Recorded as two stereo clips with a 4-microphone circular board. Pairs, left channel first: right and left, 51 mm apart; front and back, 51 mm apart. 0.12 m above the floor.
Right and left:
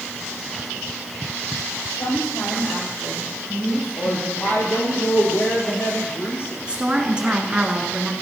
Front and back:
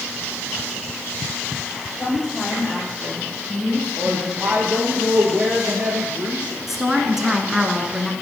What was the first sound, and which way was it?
A woman speaking, 70° right.